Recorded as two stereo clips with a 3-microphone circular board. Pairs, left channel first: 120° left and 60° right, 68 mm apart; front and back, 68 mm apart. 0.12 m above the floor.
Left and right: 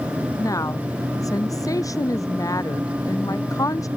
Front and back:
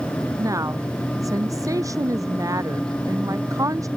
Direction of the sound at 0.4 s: 150° left.